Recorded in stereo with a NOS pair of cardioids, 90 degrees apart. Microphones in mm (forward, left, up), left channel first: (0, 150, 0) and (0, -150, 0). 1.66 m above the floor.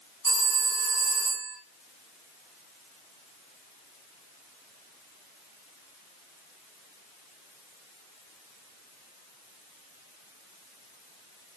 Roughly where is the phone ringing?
Ahead right.